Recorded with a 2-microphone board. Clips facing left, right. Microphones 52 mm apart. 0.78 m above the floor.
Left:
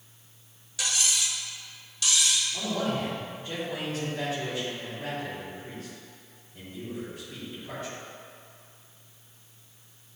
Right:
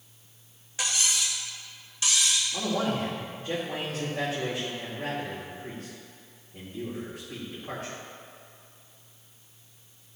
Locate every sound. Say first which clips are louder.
0.8 s cutlery clinking: even; 35° right (ahead or behind), 1.7 m
2.5 s a man speaking: right 1 dB; 45° right (ahead or behind), 1.9 m